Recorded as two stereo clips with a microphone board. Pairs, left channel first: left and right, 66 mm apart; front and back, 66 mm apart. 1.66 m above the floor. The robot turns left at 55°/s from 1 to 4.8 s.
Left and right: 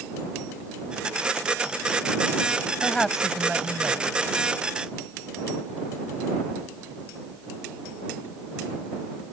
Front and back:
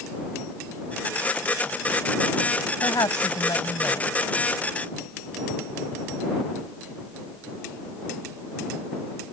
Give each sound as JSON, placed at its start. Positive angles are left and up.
{"t": 2.8, "sound": "a woman speaking", "azimuth_deg": 20}